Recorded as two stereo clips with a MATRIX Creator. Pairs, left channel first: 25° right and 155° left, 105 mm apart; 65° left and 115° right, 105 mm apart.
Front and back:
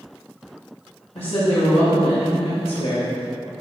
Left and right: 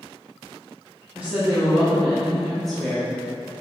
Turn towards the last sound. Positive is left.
turn(degrees=-10)